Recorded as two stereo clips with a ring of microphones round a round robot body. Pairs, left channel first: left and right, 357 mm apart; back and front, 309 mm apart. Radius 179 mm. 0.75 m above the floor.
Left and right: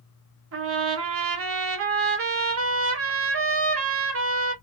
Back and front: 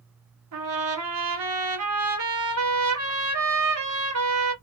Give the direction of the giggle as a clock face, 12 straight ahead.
No giggle in this recording.